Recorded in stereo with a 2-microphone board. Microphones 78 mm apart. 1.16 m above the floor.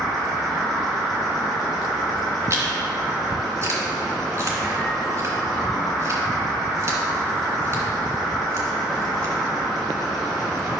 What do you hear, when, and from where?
0.0 s an insect: centre (ahead or behind), 3.5 m
2.5 s chewing: 40° right (ahead or behind), 2.5 m